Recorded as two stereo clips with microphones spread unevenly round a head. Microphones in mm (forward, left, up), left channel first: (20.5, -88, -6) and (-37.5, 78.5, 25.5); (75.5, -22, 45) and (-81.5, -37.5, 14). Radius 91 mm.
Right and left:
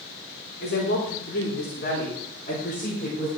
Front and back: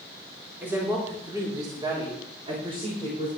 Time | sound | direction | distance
0.6 | a woman speaking | 95° right | 3.5 m